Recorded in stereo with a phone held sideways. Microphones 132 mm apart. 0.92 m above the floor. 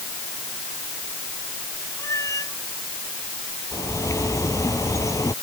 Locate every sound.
2.0 s a cat meowing: 25° left (ahead or behind)
3.7 s a bird: 25° left (ahead or behind)